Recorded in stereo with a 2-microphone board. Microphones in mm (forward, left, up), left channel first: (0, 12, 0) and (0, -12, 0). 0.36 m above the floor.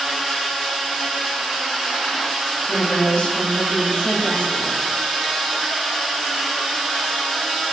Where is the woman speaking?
55° left (ahead or behind), 5 m.